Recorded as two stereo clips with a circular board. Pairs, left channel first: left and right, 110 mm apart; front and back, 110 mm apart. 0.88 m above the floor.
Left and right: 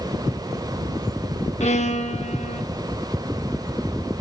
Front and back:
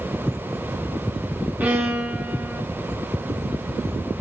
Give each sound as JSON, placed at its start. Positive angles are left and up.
{"t": 1.6, "sound": "a violin", "azimuth_deg": 105, "distance_m": 1.1}